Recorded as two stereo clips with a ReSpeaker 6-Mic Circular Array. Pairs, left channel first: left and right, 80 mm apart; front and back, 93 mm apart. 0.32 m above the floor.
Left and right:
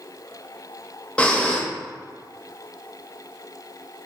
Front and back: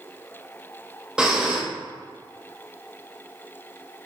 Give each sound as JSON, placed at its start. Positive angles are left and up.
{"t": 1.2, "sound": "breathing", "azimuth_deg": 120, "distance_m": 0.5}